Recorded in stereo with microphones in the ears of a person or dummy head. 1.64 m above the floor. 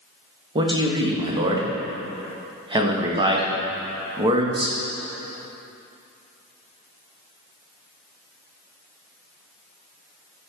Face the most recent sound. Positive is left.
turn(degrees=-15)  # may be behind; listen again after turning